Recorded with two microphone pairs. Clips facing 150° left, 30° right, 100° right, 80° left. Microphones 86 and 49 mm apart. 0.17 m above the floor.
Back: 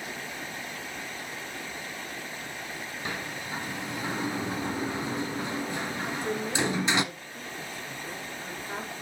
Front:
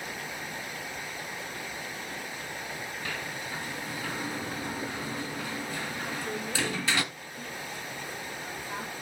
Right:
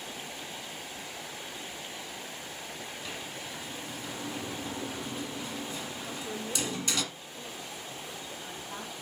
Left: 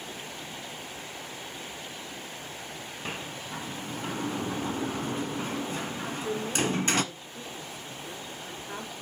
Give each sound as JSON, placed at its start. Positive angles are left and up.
{"t": 3.0, "sound": "a sliding door", "azimuth_deg": 90, "distance_m": 0.8}
{"t": 6.0, "sound": "a woman speaking", "azimuth_deg": 95, "distance_m": 3.5}